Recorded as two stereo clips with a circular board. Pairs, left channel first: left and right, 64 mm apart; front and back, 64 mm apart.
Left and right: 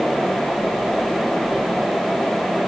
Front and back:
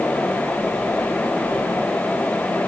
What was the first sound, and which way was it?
Only background noise.